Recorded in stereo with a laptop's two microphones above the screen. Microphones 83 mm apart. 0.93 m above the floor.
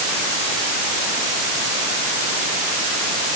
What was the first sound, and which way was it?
Only background noise.